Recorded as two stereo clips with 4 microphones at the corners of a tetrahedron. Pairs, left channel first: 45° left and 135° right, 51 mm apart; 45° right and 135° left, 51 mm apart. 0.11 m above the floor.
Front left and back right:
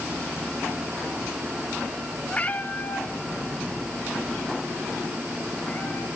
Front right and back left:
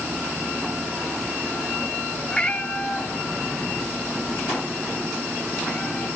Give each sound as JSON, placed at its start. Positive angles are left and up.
{"t": 2.3, "sound": "a cat meowing", "azimuth_deg": 10, "distance_m": 0.6}